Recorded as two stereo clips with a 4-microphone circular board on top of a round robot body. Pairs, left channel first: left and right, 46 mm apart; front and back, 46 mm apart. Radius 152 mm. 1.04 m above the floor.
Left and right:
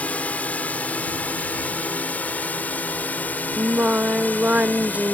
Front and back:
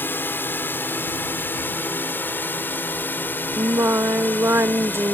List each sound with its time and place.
0.0 s a drone: 35° left; by 5.2 s 40° left
3.6 s singing: 150° right